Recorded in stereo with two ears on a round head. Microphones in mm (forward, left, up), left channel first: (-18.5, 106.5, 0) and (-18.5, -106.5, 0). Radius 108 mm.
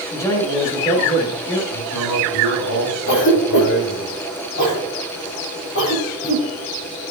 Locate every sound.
0.1 s a man speaking: 15° left (ahead or behind), 3 m
1.7 s a man speaking: 80° left, 3.5 m
3.1 s a cough: 60° left (ahead or behind), 6 m